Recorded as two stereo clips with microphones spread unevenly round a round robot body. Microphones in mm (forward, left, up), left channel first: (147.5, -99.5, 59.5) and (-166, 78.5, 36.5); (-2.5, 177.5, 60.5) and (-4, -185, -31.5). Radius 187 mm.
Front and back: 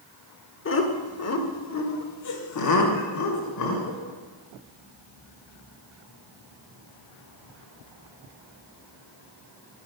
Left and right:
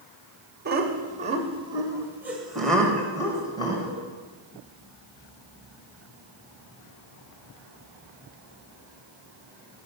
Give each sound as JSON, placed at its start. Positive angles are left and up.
{"t": 0.7, "sound": "laughter", "azimuth_deg": -70, "distance_m": 1.6}